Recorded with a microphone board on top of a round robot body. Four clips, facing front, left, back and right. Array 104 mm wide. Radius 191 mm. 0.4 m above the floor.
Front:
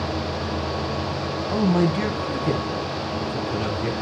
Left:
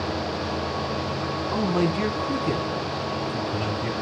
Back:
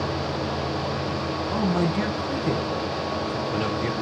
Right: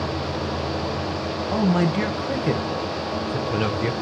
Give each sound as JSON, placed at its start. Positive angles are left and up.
{"t": 1.5, "sound": "a man speaking", "azimuth_deg": -80, "distance_m": 3.0}